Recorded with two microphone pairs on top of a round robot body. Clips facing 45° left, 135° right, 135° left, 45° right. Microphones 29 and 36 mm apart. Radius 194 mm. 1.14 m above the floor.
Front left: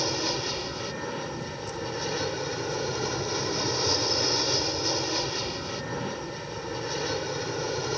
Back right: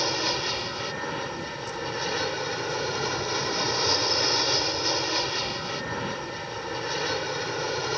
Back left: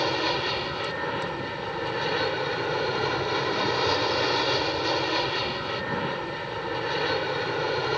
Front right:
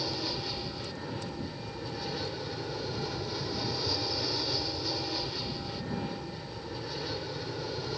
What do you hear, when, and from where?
0.0 s an aircraft: 160° left